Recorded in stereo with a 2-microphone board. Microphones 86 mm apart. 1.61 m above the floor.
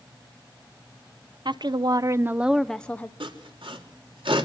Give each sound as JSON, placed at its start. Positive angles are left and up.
{"t": 1.4, "sound": "a woman speaking", "side_deg": -60, "distance_m": 0.7}
{"t": 3.2, "sound": "sawing", "side_deg": -80, "distance_m": 3.0}